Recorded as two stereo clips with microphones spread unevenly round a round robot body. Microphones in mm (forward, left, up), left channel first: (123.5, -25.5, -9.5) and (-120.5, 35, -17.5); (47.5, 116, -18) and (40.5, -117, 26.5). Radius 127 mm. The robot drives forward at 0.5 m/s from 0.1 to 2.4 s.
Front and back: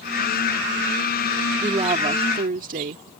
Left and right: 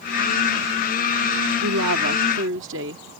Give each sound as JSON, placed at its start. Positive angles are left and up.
{"t": 1.6, "sound": "a woman speaking", "azimuth_deg": -125}